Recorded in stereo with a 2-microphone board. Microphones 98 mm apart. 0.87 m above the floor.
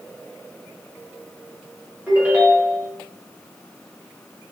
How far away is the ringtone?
About 1.3 m.